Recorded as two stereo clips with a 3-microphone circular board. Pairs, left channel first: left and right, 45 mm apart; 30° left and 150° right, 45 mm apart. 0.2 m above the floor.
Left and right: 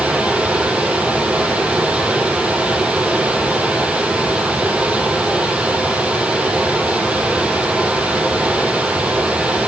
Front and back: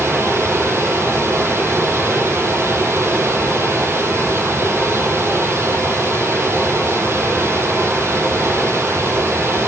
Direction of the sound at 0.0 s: 150° right.